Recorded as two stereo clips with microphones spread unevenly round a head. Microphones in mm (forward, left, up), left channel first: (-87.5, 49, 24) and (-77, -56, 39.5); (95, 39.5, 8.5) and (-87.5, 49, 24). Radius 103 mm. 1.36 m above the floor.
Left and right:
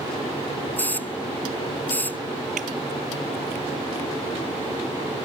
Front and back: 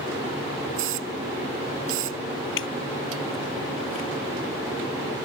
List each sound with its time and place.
0.8 s a hiss: 170° left
2.6 s dripping: 40° right